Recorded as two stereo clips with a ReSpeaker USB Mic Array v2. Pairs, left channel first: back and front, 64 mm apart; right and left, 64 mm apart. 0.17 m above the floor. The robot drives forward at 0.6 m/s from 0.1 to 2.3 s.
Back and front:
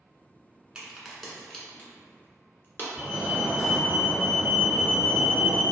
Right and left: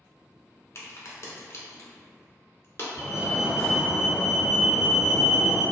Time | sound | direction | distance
0.8 | a crack | 70° right | 0.9 m
3.0 | a fire alarm | 95° right | 1.9 m